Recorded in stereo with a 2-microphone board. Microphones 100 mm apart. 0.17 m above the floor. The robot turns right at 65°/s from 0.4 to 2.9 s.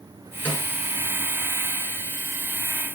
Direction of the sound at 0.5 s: 20° left (ahead or behind).